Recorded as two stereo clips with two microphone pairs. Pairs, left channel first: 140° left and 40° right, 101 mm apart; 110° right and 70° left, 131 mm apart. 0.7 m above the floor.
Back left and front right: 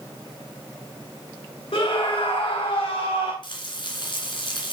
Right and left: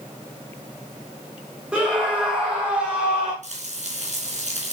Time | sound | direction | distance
1.7 | a scream | 155° left | 2 m
3.4 | frying | 100° left | 3 m